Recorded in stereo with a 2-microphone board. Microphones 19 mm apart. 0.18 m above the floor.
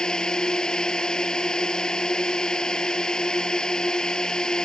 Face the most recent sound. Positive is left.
turn(degrees=40)  # may be behind; listen again after turning